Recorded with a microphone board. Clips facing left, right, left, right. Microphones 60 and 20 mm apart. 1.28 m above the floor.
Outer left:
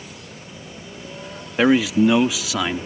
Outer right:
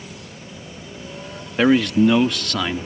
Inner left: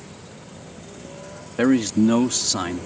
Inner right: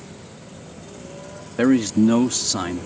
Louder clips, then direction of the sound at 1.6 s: Even, inner right 1 dB; 5° left (ahead or behind).